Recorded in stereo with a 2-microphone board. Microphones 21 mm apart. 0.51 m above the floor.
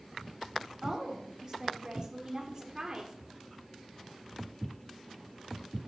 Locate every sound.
0.8 s a woman speaking: 25° right (ahead or behind), 1.6 m